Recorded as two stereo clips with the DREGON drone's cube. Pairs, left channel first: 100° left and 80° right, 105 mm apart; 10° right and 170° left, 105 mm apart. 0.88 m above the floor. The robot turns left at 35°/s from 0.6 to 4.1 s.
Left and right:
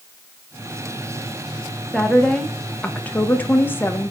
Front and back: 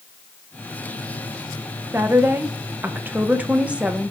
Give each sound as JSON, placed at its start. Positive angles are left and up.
{"t": 1.9, "sound": "a woman speaking", "azimuth_deg": 180, "distance_m": 0.9}